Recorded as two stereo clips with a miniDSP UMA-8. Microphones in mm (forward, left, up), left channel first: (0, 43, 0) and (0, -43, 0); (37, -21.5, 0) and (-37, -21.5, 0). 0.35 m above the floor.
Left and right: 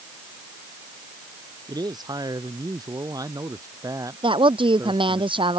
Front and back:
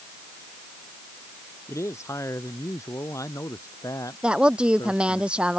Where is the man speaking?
50° right; by 5.2 s 35° right.